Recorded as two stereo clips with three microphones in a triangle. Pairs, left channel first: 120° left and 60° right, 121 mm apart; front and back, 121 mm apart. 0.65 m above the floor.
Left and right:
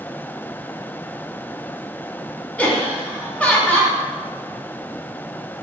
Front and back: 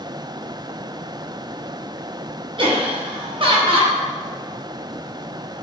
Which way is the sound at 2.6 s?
165° right.